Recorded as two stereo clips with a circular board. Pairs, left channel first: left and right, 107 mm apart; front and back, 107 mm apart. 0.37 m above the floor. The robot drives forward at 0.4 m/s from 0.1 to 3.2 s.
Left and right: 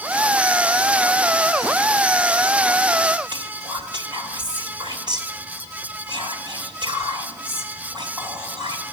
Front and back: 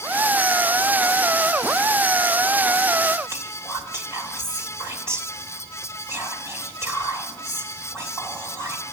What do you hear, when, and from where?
3.3 s whispering: 120° right, 1.7 m